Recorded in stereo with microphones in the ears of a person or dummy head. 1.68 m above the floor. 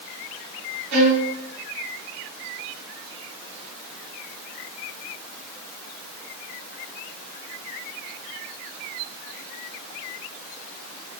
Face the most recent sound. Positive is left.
turn(degrees=-50)  # may be behind; listen again after turning